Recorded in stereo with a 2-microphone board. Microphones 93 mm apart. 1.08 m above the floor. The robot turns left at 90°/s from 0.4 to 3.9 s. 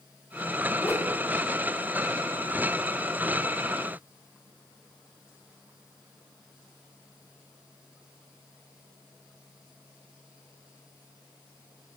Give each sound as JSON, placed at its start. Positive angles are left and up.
{"t": 0.8, "sound": "a whoosh", "azimuth_deg": 160, "distance_m": 3.0}